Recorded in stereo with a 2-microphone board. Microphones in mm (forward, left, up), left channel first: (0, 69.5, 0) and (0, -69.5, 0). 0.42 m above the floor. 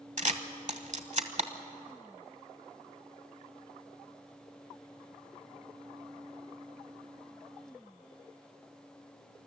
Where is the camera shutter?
55° right (ahead or behind), 1.1 m.